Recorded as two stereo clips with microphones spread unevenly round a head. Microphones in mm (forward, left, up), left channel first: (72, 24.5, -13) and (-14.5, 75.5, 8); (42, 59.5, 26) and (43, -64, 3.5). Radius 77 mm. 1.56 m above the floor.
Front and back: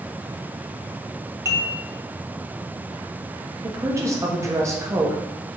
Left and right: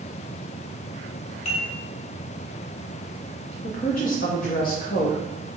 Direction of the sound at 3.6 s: 90° left.